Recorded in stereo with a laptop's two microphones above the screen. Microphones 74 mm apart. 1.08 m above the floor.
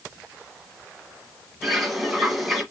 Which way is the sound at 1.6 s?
Centre (ahead or behind).